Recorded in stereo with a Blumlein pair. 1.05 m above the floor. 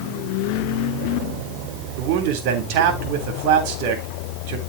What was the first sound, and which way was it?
A man speaking, 45° right.